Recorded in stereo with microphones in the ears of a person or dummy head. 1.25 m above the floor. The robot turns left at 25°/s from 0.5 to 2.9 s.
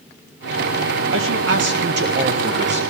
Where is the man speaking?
105° right, 1.6 m; by 2.8 s 145° right, 1.6 m.